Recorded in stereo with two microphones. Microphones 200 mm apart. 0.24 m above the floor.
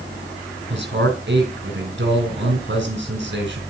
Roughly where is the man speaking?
Right.